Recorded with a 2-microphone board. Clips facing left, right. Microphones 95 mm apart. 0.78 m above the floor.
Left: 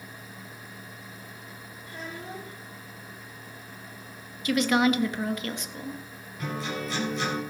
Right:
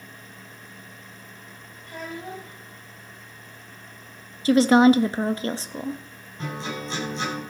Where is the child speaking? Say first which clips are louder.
Right 4 dB; 65° right (ahead or behind), 5 m.